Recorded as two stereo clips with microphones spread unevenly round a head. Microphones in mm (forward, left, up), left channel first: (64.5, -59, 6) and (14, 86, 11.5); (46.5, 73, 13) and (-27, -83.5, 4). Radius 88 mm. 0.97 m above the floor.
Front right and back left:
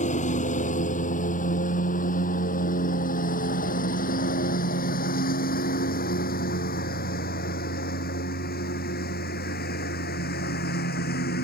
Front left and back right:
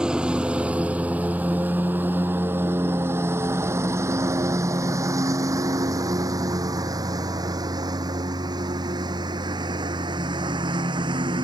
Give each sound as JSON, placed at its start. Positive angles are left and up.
{"t": 0.0, "sound": "a lawn mower", "azimuth_deg": -30}